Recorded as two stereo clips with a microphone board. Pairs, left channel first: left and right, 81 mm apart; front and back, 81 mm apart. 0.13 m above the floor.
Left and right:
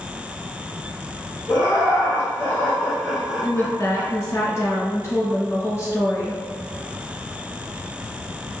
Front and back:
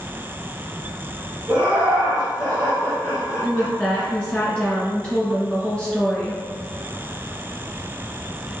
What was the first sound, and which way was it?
Laughter, 115° left.